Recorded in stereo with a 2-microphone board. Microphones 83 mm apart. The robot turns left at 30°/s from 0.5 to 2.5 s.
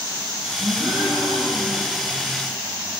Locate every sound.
0.6 s a gasp: 135° right, 7.5 m; by 1.9 s 175° right, 7.5 m